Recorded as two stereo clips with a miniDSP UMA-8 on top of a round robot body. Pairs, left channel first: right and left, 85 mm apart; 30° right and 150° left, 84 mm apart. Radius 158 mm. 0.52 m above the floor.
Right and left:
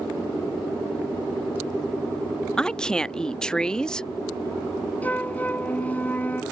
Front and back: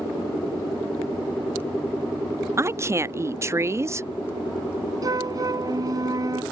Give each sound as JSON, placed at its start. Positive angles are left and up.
{"t": 2.6, "sound": "a woman speaking", "azimuth_deg": -165}
{"t": 5.0, "sound": "a flute", "azimuth_deg": -160}